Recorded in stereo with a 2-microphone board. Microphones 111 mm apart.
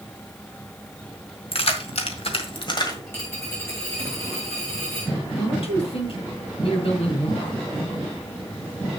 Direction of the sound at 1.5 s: 60° left (ahead or behind).